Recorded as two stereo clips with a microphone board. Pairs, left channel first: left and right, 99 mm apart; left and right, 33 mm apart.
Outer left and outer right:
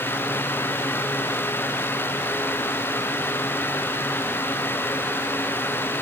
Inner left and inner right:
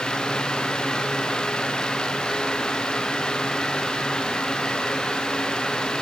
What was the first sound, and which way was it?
Only background noise.